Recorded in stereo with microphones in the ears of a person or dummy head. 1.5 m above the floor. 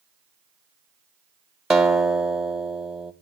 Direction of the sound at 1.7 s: 5° right (ahead or behind).